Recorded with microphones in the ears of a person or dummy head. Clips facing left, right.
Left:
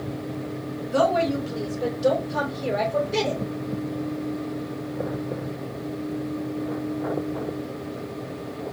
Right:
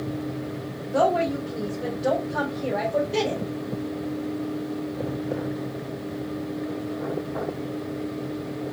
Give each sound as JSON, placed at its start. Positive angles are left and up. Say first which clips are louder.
{"t": 0.8, "sound": "a woman speaking", "louder": "left 1 dB", "side_deg": 55, "distance_m": 2.5}